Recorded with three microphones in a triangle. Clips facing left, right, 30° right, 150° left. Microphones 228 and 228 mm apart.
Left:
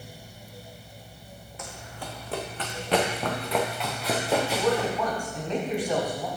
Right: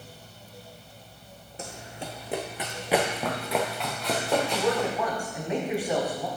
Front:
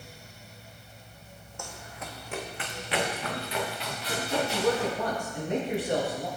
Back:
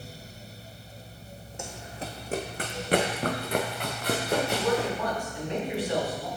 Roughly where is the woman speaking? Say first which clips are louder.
Left 1 dB, even; ahead.